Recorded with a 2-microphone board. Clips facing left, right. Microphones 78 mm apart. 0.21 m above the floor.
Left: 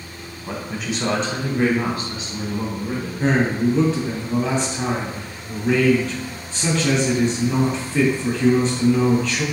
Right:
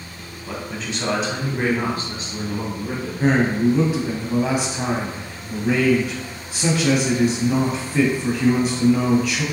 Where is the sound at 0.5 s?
20° left (ahead or behind), 1.1 m; by 3.1 s 55° right (ahead or behind), 1.7 m.